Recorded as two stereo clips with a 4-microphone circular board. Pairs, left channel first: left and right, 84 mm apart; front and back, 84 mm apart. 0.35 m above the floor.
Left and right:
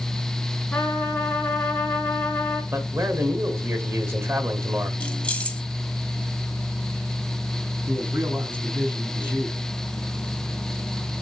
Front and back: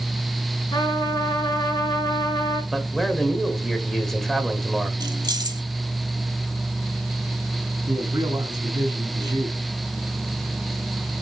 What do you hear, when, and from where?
0.7 s a trumpet: 20° left, 3.5 m
2.7 s a man speaking: 85° right, 1.4 m
5.0 s keys jangling: 165° left, 1.2 m
7.9 s a man speaking: 155° right, 3 m